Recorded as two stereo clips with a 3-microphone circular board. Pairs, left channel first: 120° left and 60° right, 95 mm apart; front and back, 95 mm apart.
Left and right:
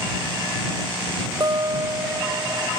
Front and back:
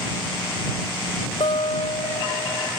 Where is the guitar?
15° right.